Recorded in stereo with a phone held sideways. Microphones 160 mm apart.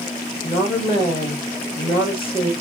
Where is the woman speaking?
35° left (ahead or behind), 1.8 m.